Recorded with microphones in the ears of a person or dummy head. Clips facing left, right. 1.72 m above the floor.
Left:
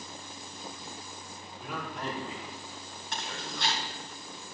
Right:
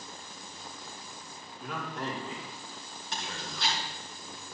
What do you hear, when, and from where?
1.6 s a man speaking: 10° left (ahead or behind), 4 m; by 3.8 s 5° right (ahead or behind), 5 m
3.1 s chewing: 45° left (ahead or behind), 3.5 m